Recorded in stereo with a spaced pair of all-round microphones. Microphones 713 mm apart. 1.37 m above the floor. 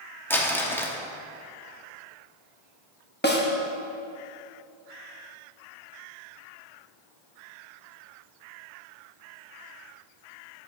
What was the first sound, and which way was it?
Crumpling, 5° left (ahead or behind).